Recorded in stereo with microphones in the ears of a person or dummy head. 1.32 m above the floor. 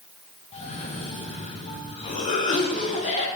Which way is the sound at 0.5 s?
35° left (ahead or behind).